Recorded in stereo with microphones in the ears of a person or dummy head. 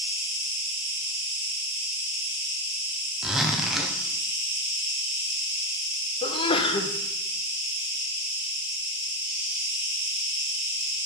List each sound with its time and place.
0.0 s an insect: 30° left (ahead or behind), 2.5 m
3.2 s a zipper: 5° right (ahead or behind), 0.6 m
6.2 s a sneeze: 25° left (ahead or behind), 0.7 m